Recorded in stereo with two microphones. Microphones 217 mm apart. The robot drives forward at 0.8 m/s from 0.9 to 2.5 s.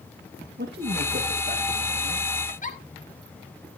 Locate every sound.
0.6 s a man speaking: 55° right (ahead or behind), 1.6 m; by 2.3 s 35° right (ahead or behind), 2.5 m
2.5 s a giggle: 40° left (ahead or behind), 1.5 m